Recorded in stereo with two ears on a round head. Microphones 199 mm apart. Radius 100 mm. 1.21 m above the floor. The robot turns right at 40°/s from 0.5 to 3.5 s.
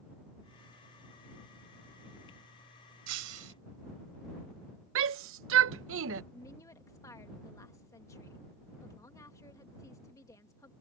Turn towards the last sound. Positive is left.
turn(degrees=15)  # may be behind; listen again after turning